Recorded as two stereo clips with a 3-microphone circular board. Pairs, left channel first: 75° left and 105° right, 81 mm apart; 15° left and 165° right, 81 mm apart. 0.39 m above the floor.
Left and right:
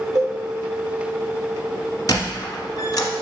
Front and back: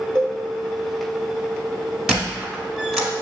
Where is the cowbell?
120° right, 1.2 m.